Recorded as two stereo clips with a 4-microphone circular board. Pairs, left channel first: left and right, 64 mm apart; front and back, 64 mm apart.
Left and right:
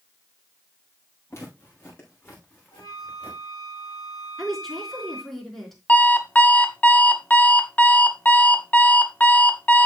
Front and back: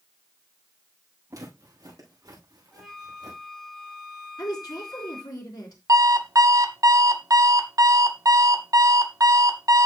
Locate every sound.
1.3 s footsteps: 140° left, 6 m; by 3.4 s 160° left, 7 m
2.7 s a flute: 90° left, 3.5 m
4.4 s a woman speaking: 5° left, 4 m
5.9 s an alarm clock: 155° left, 0.9 m